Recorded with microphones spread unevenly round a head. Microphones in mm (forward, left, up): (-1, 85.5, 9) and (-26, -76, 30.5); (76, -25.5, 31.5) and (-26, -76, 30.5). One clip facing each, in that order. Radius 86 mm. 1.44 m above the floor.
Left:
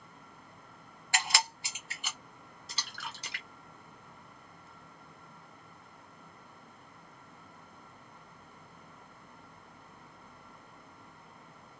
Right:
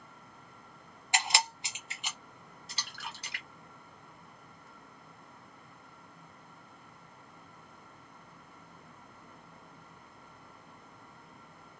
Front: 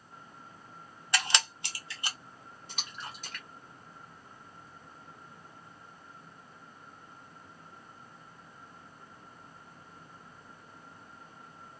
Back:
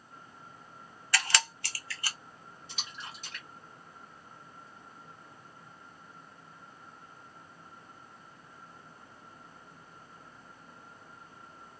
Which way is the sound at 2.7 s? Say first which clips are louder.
Left 1 dB, front 2 dB; 80° left.